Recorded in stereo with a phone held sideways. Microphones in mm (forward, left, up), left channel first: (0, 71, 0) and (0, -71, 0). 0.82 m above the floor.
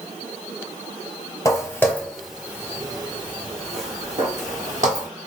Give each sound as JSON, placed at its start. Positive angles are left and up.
{"t": 1.4, "sound": "footsteps", "side_deg": 25, "distance_m": 1.0}